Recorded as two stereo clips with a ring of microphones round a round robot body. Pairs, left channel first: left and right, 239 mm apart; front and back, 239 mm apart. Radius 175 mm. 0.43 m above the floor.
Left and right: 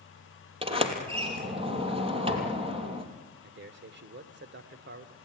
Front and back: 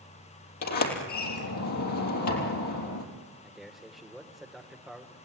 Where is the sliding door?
25° right, 3.5 m.